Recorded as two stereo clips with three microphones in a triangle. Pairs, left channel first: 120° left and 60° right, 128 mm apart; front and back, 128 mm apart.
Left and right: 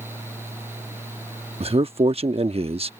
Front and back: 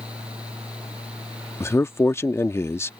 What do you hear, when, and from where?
1.6 s a man speaking: 65° right